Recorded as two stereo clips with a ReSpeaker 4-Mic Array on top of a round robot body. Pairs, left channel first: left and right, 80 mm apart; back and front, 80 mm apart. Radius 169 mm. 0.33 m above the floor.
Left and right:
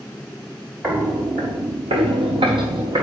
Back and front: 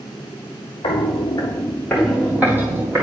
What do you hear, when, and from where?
0.8 s footsteps: 165° right, 0.9 m; by 3.0 s 60° right, 1.2 m